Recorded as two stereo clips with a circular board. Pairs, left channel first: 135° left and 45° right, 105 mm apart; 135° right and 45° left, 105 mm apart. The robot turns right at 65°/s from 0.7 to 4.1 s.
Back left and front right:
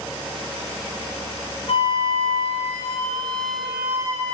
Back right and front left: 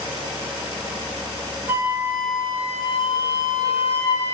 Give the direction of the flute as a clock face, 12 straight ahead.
8 o'clock.